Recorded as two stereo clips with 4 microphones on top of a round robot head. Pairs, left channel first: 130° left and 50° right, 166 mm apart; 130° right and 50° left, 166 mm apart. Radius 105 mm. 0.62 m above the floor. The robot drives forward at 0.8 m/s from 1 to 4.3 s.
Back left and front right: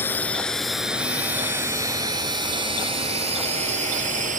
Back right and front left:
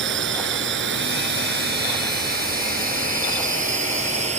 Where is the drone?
55° left; by 4.4 s 5° right.